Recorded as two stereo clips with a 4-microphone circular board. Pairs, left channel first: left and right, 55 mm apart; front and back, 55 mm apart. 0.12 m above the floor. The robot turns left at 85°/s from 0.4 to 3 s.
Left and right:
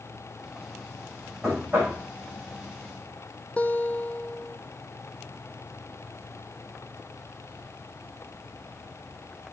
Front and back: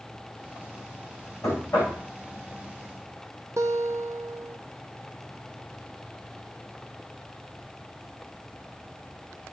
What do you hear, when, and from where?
1.4 s knocking: 15° right, 7 m; by 2.0 s 60° right, 7 m
3.6 s a guitar: 155° left, 0.8 m